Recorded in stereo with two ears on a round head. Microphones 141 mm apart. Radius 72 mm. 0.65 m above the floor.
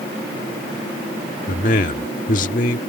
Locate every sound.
1.5 s a man speaking: 55° left (ahead or behind)